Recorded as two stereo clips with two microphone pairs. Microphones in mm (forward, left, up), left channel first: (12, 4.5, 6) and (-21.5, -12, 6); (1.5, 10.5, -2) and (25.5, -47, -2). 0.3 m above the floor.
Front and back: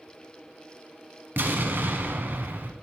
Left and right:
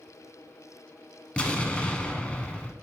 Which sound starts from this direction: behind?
An explosion, at 1.4 s.